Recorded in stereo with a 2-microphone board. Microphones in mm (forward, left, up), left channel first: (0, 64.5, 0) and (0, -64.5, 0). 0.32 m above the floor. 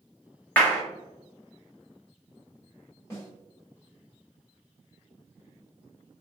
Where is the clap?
15° left (ahead or behind), 1.0 m.